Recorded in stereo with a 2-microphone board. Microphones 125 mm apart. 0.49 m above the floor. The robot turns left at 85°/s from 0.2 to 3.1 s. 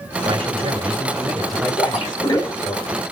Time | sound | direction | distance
0.2 | a man speaking | 75° right | 1.8 m
1.8 | a splash | 55° left (ahead or behind) | 2 m